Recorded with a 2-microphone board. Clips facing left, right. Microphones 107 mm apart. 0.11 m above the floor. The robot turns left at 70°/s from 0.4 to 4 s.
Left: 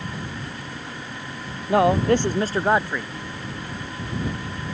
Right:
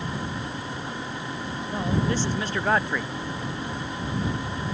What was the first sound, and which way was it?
A man speaking, 90° left.